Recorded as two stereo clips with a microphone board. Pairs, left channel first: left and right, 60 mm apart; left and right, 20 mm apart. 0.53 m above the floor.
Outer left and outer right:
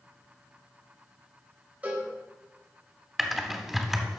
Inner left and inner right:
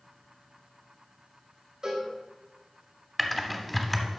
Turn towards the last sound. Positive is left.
turn(degrees=0)  # may be behind; listen again after turning